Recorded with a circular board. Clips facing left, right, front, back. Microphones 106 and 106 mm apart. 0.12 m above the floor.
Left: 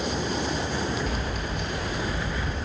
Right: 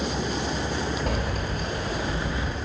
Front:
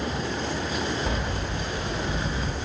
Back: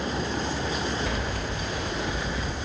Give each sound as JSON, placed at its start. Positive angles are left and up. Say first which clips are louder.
{"t": 1.1, "sound": "keys jangling", "louder": "right 2 dB, front 1 dB", "azimuth_deg": -65, "distance_m": 1.3}